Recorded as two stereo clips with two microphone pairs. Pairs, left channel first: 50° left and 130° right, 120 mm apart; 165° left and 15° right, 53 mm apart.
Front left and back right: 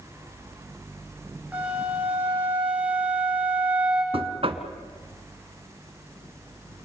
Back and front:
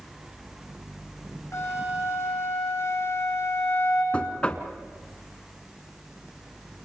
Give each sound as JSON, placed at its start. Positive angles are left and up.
{"t": 1.5, "sound": "a flute", "azimuth_deg": 155, "distance_m": 9.0}
{"t": 4.1, "sound": "knocking", "azimuth_deg": -130, "distance_m": 1.5}